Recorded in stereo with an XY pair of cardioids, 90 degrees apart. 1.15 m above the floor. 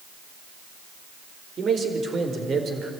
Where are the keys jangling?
No keys jangling in this recording.